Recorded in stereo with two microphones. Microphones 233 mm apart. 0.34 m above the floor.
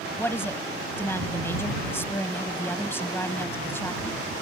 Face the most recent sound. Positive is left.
turn(degrees=10)  # may be behind; listen again after turning